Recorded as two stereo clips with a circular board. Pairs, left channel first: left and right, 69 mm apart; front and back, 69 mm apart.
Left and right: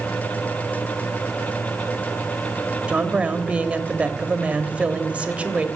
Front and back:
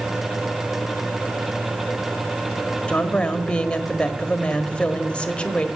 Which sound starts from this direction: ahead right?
A woman speaking, at 2.9 s.